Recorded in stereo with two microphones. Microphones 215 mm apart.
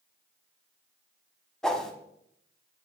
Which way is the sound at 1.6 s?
5° left (ahead or behind).